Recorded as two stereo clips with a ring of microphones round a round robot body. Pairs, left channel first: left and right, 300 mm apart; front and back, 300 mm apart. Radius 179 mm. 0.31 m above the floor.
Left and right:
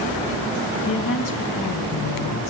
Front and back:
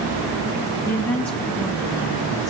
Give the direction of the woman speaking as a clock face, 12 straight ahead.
9 o'clock.